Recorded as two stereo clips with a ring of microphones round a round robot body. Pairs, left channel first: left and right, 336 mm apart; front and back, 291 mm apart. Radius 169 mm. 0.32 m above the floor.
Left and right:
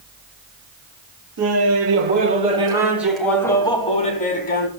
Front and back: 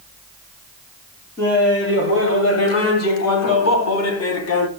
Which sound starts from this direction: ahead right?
Laughter, at 1.4 s.